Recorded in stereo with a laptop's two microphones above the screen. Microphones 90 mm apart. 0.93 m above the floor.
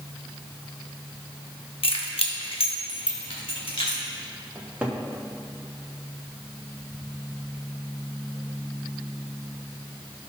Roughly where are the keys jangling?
Left.